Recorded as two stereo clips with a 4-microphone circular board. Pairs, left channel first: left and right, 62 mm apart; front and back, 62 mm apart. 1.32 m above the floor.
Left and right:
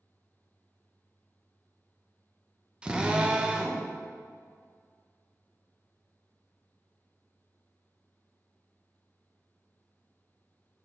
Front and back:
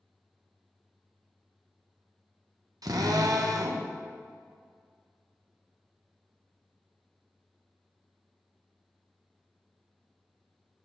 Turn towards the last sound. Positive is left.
turn(degrees=-165)